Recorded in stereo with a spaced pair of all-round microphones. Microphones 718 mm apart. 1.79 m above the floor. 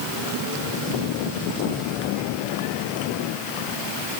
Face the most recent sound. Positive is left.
No sound to turn to.